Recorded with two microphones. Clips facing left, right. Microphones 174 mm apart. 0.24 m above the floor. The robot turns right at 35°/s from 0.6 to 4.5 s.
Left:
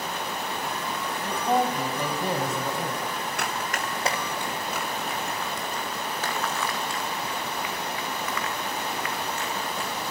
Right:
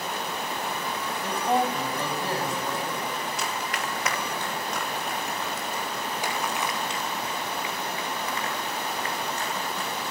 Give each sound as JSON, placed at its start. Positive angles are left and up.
{"t": 1.2, "sound": "a man speaking", "azimuth_deg": -5, "distance_m": 1.5}
{"t": 3.4, "sound": "running footsteps", "side_deg": 65, "distance_m": 2.0}